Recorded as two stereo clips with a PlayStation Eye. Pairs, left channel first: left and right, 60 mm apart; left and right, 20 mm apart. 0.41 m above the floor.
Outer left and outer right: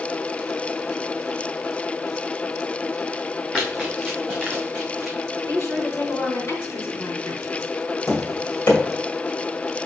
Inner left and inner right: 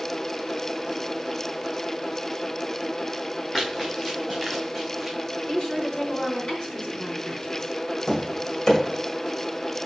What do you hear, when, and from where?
3.5 s running footsteps: 10° left (ahead or behind), 3 m; by 5.2 s 5° left (ahead or behind), 1.3 m
5.5 s a woman speaking: 50° left (ahead or behind), 3 m
8.1 s tapping: 40° left (ahead or behind), 2 m